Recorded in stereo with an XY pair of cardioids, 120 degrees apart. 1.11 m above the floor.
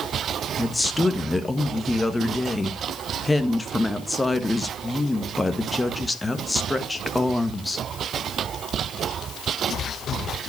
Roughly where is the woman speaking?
Ahead.